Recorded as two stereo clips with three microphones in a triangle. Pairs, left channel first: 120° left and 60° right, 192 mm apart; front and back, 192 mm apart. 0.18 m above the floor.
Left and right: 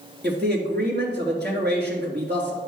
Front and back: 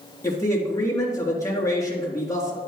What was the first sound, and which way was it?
A man speaking, 70° right.